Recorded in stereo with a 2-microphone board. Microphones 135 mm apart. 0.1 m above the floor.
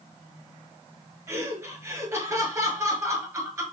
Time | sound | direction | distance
1.3 | laughter | 25° right (ahead or behind) | 1.5 m